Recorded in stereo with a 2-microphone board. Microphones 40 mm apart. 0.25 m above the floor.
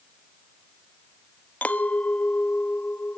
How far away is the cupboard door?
I don't hear a cupboard door.